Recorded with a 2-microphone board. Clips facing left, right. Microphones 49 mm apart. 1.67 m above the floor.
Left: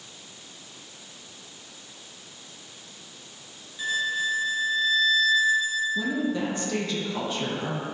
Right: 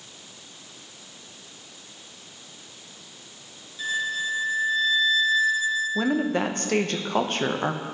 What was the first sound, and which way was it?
A violin, 15° left (ahead or behind).